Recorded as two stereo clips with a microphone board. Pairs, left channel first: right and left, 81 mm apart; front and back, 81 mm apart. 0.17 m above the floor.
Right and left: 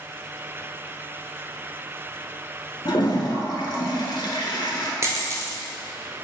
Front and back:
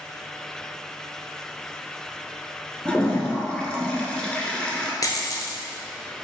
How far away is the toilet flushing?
About 0.6 m.